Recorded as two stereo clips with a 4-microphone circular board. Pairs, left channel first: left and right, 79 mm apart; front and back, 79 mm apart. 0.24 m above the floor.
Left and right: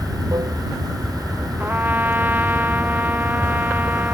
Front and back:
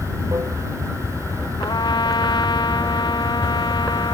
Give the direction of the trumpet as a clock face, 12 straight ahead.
1 o'clock.